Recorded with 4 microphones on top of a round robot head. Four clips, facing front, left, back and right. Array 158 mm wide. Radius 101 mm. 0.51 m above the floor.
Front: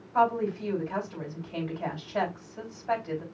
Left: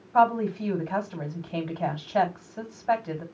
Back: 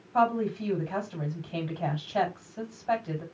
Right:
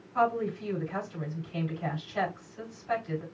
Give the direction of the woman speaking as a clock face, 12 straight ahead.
9 o'clock.